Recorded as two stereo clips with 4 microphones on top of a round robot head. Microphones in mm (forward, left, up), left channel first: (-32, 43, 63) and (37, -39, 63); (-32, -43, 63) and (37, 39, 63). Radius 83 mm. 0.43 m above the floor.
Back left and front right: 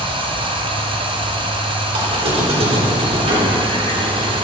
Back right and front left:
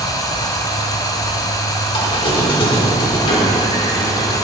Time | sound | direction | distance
0.0 | running water | 75° right | 1.4 m
1.9 | a squeak | 85° right | 3.5 m